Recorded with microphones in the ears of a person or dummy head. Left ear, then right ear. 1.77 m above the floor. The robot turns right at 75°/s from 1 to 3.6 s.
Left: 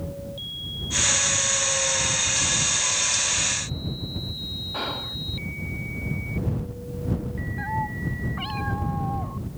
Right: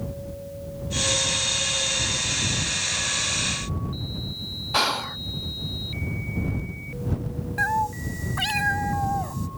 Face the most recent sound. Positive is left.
turn(degrees=-75)  # may be behind; listen again after turning